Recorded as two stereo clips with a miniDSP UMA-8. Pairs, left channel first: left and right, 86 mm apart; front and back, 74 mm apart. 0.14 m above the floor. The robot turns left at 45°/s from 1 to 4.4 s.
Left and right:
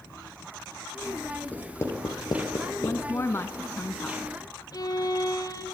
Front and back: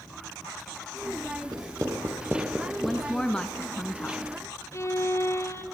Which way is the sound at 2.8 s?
95° left.